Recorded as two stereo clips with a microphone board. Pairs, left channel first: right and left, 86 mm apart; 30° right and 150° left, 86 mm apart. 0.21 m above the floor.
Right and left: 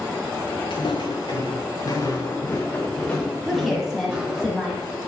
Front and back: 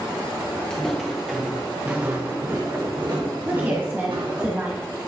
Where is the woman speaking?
Straight behind, 1.1 m.